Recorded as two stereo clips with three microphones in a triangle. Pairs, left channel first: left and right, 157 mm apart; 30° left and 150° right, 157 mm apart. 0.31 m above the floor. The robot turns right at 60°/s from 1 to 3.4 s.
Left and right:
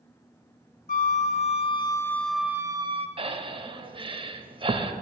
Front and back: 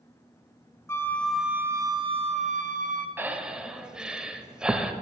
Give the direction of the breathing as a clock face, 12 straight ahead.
3 o'clock.